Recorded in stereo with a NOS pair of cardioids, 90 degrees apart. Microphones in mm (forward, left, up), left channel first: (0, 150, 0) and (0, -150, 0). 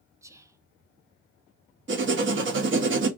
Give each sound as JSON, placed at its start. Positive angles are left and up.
{"t": 0.2, "sound": "whispering", "azimuth_deg": -10, "distance_m": 0.8}
{"t": 1.9, "sound": "writing", "azimuth_deg": -40, "distance_m": 1.2}